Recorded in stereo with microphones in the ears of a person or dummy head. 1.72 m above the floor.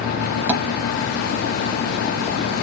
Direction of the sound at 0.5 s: 10° right (ahead or behind).